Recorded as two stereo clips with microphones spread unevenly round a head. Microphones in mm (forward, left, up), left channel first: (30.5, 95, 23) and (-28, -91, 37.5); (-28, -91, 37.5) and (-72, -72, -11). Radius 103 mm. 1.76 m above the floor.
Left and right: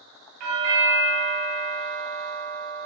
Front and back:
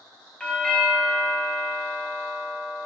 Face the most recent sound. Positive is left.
turn(degrees=-100)